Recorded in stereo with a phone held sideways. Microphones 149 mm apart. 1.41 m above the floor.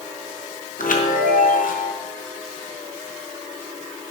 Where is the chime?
75° left (ahead or behind), 1.0 m.